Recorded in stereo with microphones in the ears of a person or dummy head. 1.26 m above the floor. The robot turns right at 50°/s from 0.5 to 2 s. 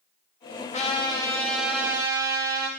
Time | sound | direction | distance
0.7 | a trumpet | 140° left | 2.5 m